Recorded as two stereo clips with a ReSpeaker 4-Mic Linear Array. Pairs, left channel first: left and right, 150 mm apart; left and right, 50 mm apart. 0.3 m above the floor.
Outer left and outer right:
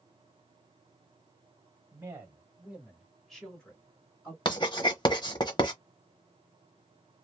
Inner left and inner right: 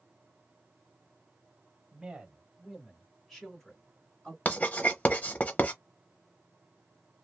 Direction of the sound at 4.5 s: 35° left (ahead or behind).